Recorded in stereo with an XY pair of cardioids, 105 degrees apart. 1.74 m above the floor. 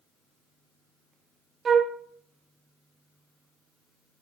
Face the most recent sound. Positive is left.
turn(degrees=-45)